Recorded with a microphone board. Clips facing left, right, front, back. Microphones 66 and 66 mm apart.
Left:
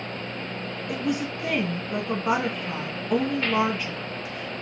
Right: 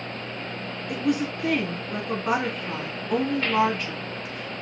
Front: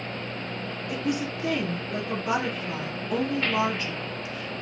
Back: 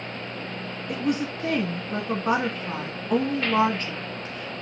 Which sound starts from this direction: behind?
A woman speaking, at 0.9 s.